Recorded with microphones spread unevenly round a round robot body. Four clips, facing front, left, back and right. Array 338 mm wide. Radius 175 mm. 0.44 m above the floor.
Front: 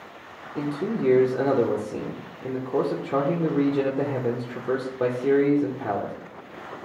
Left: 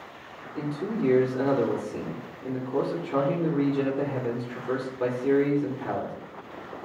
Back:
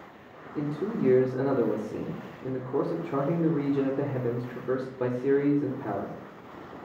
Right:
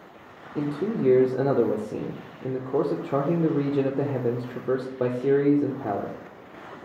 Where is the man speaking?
75° right, 0.8 m.